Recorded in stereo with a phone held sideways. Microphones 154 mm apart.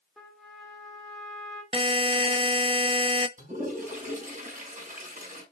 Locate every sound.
0.2 s a trumpet: 5° left (ahead or behind), 2 m
1.7 s a buzzer: 35° right (ahead or behind), 0.6 m
3.4 s a toilet flushing: 55° right (ahead or behind), 5.5 m